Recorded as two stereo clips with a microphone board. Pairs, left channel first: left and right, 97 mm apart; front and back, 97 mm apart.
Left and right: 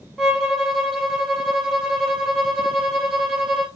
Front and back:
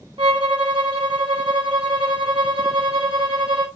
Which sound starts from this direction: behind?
A violin, at 0.2 s.